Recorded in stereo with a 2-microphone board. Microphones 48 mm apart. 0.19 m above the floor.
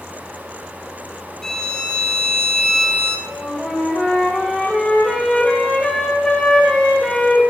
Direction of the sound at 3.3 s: 15° left (ahead or behind).